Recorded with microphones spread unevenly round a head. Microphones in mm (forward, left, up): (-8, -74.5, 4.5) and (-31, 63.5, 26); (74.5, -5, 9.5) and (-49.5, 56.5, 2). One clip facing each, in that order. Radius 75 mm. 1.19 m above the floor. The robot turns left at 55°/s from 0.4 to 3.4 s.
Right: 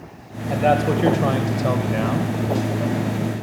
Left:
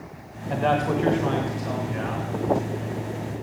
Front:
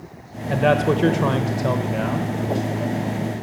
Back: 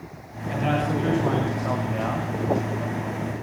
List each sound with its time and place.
0.5 s a man speaking: 5° left, 1.0 m; by 2.3 s 95° right, 1.0 m